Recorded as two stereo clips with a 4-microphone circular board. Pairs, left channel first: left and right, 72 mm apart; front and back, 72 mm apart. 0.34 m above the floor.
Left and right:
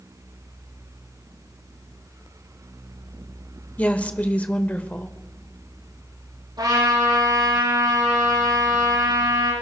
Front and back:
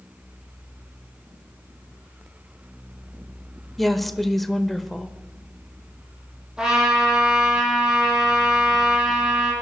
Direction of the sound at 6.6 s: 100° right.